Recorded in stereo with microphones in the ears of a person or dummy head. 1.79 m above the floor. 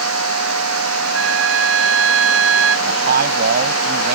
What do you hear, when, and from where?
0.0 s a machine running: 85° right
1.1 s a flute: 75° right (ahead or behind)
2.9 s a man speaking: 55° right (ahead or behind)